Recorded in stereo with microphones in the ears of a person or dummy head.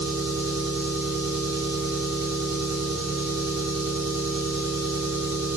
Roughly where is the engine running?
Right.